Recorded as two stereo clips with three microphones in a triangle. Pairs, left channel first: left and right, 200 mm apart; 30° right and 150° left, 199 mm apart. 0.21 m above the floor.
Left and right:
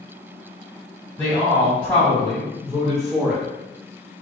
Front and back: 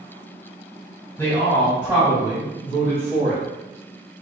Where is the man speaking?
25° left, 1.3 m; by 3.4 s straight behind, 1.7 m.